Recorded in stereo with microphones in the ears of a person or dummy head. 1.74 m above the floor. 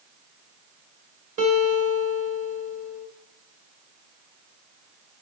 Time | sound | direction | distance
1.4 | a guitar | 25° right (ahead or behind) | 2.5 m